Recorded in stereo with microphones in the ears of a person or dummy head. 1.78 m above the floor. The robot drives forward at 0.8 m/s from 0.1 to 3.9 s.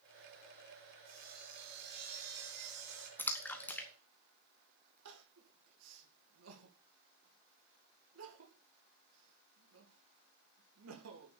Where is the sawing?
50° right (ahead or behind), 4.5 m; by 3.1 s 65° right (ahead or behind), 4 m.